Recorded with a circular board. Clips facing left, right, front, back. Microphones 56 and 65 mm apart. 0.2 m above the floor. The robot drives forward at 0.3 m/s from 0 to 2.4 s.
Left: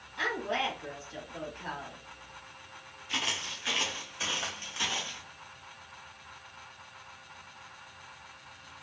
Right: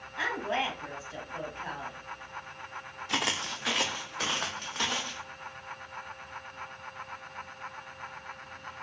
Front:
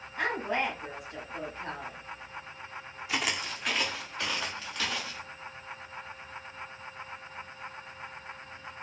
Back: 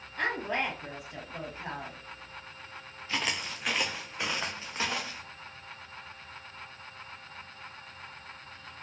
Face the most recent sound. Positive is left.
turn(degrees=-120)